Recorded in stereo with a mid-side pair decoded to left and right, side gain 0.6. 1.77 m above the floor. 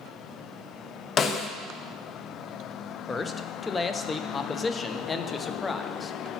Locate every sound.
1.2 s a snare drum: 40° left, 0.5 m
3.1 s a man speaking: 25° left, 0.5 m